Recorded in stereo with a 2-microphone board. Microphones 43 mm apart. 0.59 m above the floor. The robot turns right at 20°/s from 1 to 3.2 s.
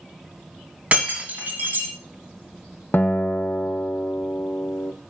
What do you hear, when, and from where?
0.9 s breaking glass: 30° right (ahead or behind), 3 m; by 1.9 s 45° right (ahead or behind), 3 m
2.9 s a guitar: 45° left (ahead or behind), 0.7 m